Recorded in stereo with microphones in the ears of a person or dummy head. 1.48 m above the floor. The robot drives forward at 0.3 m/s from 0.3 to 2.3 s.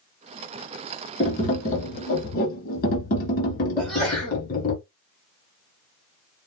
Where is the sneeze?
10° right (ahead or behind), 1.3 m.